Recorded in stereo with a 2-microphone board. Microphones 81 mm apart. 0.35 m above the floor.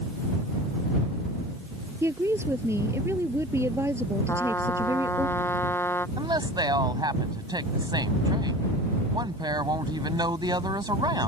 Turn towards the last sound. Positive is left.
turn(degrees=-65)  # may be behind; listen again after turning